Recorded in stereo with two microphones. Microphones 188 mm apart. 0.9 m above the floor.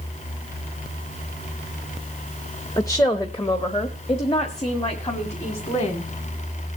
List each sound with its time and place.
2.8 s a woman speaking: 15° left (ahead or behind), 0.7 m; by 6.1 s 35° left (ahead or behind), 2.5 m